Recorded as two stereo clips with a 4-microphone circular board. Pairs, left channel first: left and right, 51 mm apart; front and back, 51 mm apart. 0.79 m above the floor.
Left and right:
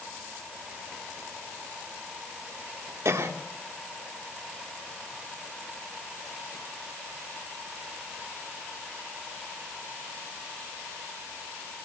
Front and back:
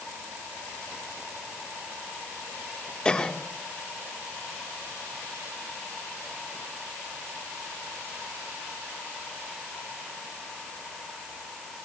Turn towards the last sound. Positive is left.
turn(degrees=-75)